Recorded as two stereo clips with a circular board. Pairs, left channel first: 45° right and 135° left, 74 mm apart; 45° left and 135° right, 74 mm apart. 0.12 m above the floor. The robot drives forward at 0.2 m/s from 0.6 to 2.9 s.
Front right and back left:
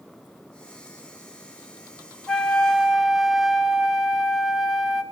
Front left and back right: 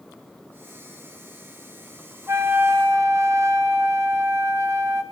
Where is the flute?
120° right, 0.6 m; by 5.0 s 135° right, 0.7 m.